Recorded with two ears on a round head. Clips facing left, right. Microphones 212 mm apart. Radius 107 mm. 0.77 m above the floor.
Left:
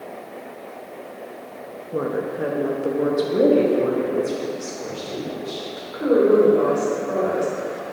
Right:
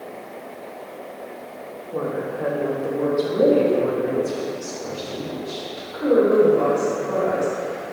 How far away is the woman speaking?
About 0.6 m.